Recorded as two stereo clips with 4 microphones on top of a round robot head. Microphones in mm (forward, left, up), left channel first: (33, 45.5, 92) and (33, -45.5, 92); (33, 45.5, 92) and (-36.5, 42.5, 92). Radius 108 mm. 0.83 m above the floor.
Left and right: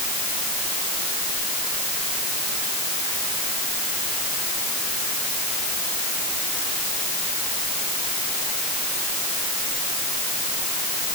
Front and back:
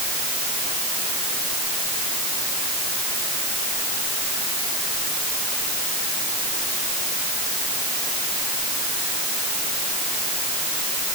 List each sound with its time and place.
Only background noise.